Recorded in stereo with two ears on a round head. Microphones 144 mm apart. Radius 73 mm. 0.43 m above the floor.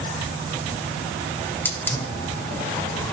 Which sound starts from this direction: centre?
A hiss, at 1.4 s.